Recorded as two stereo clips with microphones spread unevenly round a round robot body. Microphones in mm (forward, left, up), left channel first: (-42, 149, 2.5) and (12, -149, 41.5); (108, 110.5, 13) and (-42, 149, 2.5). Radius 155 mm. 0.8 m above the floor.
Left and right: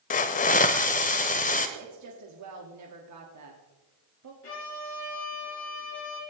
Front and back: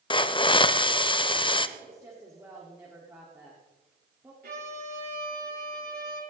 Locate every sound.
0.1 s a hiss: 35° left, 0.7 m
1.8 s a woman speaking: 115° right, 1.6 m
4.4 s a violin: 150° left, 5.5 m